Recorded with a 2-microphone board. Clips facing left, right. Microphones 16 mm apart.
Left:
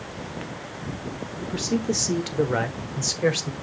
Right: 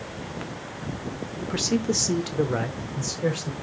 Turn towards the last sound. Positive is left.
turn(degrees=45)  # may be behind; listen again after turning